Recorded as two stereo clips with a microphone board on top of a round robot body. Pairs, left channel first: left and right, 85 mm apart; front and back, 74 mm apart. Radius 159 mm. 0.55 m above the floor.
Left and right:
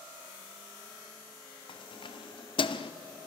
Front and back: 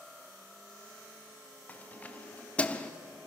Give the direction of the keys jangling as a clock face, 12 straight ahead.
10 o'clock.